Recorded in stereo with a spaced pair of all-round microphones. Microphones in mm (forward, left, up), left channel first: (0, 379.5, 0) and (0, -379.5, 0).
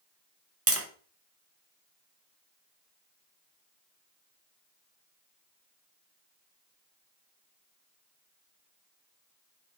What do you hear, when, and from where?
0.7 s tapping: 20° right (ahead or behind), 0.5 m